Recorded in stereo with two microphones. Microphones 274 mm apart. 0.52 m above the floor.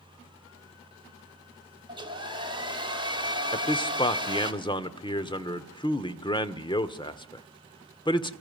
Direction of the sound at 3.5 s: 15° left (ahead or behind).